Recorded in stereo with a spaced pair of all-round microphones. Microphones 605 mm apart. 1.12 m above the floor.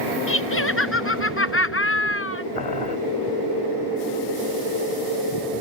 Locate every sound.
0.3 s laughter: 20° left (ahead or behind)
2.5 s boiling: 60° left (ahead or behind)